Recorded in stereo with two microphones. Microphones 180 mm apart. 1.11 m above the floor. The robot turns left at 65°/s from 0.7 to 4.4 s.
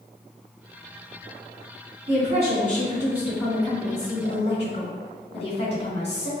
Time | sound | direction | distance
2.1 | a woman speaking | 95° right | 1.7 m